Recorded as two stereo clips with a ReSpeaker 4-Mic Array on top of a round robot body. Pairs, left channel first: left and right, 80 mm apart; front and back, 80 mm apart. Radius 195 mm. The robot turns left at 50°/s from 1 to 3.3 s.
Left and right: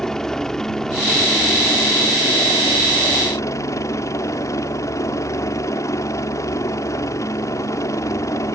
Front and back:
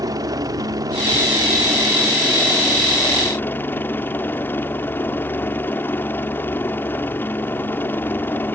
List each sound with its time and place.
0.0 s a helicopter: 170° left; by 8.6 s 55° left